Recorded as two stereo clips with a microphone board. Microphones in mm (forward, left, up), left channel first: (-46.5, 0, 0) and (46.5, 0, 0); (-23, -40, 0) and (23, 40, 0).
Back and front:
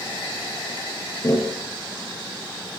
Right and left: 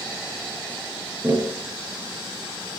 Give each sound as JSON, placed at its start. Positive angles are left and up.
{"t": 1.2, "sound": "tapping", "azimuth_deg": 125, "distance_m": 6.5}